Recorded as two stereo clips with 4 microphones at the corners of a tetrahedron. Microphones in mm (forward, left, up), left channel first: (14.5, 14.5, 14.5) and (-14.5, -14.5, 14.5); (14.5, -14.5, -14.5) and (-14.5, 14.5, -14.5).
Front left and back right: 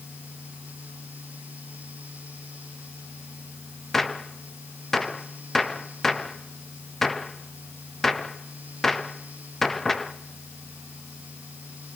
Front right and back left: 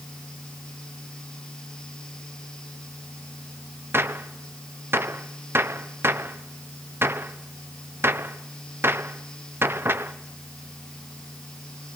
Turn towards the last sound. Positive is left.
turn(degrees=130)